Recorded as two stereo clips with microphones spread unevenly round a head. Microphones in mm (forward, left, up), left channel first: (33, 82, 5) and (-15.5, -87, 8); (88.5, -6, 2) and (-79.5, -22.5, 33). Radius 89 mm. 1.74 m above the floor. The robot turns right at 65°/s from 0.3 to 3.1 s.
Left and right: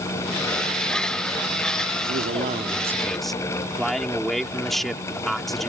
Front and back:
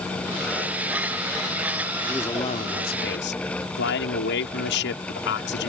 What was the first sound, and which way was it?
A man speaking, 80° right.